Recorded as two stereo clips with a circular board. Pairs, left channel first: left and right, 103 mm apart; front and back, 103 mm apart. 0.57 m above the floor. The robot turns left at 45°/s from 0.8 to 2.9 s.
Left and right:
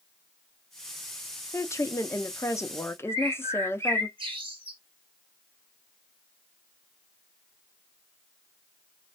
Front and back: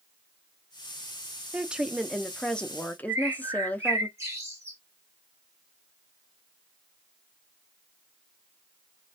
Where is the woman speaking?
120° left, 0.6 m; by 4.1 s 60° left, 0.6 m.